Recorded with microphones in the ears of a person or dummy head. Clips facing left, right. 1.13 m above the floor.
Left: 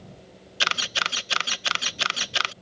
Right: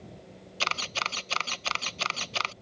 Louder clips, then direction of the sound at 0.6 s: Left 2 dB; 15° left (ahead or behind).